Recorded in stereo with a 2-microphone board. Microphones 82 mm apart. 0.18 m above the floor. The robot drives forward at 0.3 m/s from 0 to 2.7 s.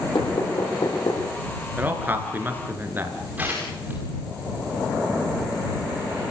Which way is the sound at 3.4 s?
20° right (ahead or behind).